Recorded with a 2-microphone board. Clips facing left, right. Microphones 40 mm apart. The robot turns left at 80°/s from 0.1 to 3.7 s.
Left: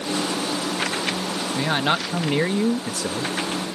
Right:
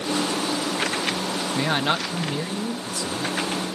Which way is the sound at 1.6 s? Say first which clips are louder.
Left 1 dB; 170° right.